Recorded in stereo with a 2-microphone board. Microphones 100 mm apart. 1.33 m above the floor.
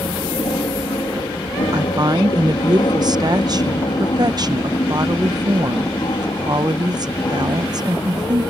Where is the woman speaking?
40° right (ahead or behind).